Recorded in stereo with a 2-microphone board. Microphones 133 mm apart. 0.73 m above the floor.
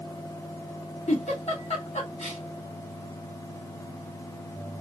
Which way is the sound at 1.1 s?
55° left (ahead or behind).